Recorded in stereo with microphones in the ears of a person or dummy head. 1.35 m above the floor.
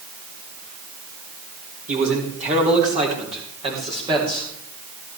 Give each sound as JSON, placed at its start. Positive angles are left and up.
{"t": 1.9, "sound": "a man speaking", "side_deg": -50, "distance_m": 3.5}